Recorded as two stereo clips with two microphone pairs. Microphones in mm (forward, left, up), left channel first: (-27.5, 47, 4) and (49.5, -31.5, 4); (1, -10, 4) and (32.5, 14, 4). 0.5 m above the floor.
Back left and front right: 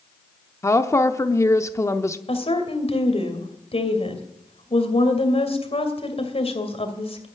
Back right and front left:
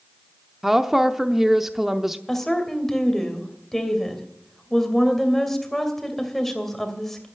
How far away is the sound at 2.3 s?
About 2.5 m.